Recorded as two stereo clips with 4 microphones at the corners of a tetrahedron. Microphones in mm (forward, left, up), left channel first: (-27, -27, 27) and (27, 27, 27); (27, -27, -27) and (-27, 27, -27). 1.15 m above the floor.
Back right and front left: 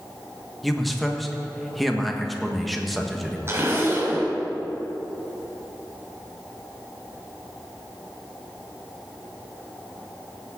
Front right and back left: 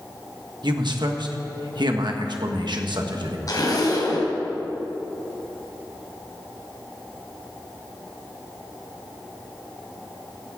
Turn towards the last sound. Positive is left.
turn(degrees=-10)